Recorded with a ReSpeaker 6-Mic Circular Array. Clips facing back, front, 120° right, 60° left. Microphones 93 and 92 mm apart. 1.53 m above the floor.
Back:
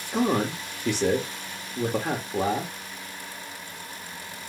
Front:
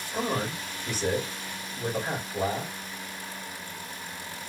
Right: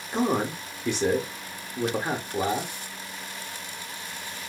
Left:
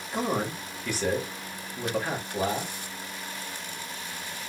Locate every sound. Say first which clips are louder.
0.1 s a man speaking: back 6 dB, right 4 dB; 175° left, 1.0 m